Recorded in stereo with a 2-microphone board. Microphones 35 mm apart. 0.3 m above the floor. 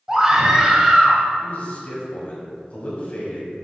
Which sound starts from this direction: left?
A man speaking, at 1.4 s.